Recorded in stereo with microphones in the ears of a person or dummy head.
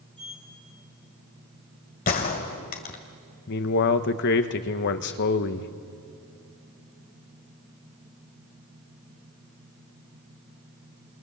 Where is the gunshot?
40° left (ahead or behind), 2 m.